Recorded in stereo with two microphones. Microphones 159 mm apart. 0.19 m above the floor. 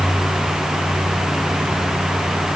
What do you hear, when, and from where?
Only background noise.